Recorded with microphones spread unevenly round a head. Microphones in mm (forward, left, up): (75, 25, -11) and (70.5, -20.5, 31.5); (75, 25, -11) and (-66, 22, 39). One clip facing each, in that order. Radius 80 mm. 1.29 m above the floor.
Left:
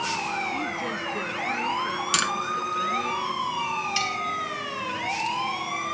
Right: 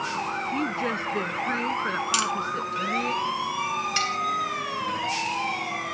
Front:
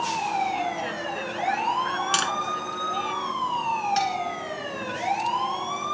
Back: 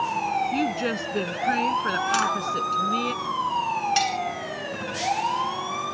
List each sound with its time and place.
0.5 s a woman speaking: 145° right
2.1 s tapping: 60° left
4.0 s cutlery clinking: 120° right